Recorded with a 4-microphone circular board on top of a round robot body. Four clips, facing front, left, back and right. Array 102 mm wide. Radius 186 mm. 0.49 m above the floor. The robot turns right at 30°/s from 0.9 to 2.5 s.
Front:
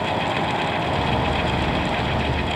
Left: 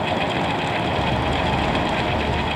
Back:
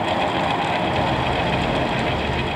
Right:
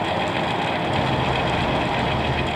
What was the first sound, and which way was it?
Only background noise.